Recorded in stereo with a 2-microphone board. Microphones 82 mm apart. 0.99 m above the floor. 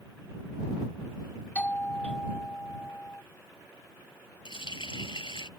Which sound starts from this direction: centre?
A doorbell, at 1.6 s.